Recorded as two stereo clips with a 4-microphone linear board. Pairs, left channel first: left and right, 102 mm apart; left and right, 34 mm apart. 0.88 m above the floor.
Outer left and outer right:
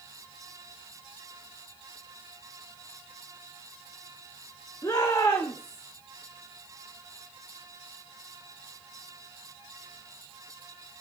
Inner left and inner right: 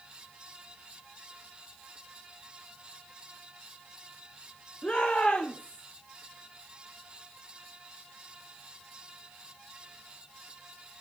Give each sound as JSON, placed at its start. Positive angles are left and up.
{"t": 4.8, "sound": "a shout", "side_deg": 35, "distance_m": 2.5}